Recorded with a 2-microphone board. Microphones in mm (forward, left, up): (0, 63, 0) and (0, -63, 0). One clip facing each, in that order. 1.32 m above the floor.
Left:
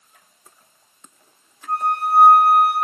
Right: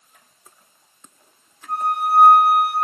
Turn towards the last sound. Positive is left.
turn(degrees=60)  # may be behind; listen again after turning